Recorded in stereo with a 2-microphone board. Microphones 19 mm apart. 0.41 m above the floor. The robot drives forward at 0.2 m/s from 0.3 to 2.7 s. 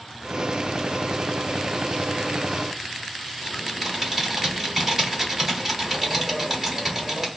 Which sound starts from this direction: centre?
Typing on a keyboard, at 3.4 s.